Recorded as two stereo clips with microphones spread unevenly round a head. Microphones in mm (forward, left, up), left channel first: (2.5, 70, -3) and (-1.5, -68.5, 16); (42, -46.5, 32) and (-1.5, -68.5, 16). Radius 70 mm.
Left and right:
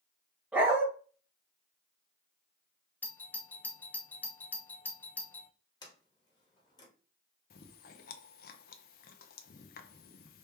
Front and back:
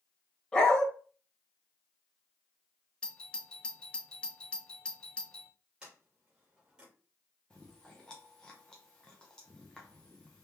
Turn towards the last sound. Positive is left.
turn(degrees=110)